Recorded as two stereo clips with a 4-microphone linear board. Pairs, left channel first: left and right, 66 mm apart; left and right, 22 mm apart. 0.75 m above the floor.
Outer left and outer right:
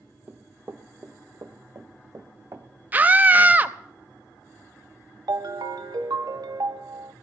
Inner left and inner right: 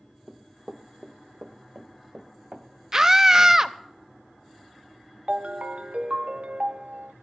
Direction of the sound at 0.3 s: 30° right (ahead or behind).